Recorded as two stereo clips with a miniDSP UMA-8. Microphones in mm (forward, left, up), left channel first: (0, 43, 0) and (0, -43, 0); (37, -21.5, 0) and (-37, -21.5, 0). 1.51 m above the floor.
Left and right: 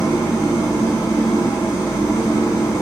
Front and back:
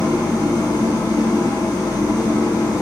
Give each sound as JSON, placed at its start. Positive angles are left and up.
{"t": 0.0, "sound": "an engine running", "azimuth_deg": 35, "distance_m": 1.9}